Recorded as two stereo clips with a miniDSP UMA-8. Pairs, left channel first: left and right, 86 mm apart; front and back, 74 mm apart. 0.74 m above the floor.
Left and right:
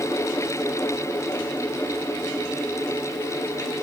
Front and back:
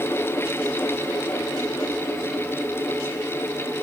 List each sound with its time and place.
Only background noise.